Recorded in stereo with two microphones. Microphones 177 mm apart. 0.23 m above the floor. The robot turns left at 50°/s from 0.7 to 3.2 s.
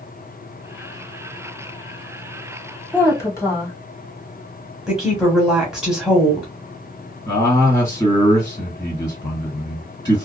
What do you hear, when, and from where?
2.9 s a woman speaking: 10° left (ahead or behind), 1.2 m; by 3.7 s 15° left (ahead or behind), 1.2 m
4.9 s a woman speaking: 5° right (ahead or behind), 1.1 m
7.3 s a man speaking: 20° left (ahead or behind), 2 m